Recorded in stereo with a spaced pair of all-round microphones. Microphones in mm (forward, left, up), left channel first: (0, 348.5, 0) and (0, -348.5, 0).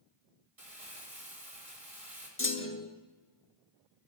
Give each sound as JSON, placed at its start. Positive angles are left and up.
{"t": 0.6, "sound": "crumpling", "side_deg": -50, "distance_m": 3.0}
{"t": 2.4, "sound": "a clunk", "side_deg": 20, "distance_m": 0.7}